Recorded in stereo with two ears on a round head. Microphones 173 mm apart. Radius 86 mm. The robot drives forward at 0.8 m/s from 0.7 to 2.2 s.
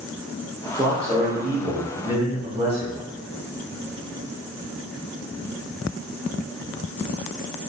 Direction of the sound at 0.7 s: 20° right (ahead or behind).